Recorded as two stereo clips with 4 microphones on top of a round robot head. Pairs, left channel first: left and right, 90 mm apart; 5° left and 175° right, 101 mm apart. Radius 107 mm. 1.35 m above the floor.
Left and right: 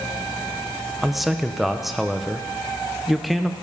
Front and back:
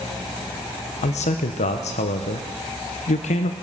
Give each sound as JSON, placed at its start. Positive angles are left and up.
{"t": 1.0, "sound": "a man speaking", "azimuth_deg": 0, "distance_m": 0.6}